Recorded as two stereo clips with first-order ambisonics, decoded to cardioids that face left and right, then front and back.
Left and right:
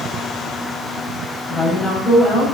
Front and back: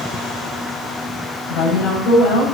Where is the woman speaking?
20° left, 5.5 m.